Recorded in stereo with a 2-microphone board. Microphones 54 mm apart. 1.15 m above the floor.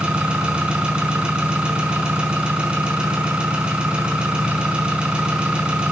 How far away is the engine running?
About 5 m.